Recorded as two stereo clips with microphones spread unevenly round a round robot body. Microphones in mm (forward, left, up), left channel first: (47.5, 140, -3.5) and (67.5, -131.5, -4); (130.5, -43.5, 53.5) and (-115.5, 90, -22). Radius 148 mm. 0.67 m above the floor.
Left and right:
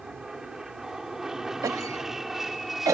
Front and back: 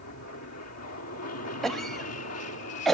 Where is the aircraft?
Straight ahead; by 3.0 s 5° left.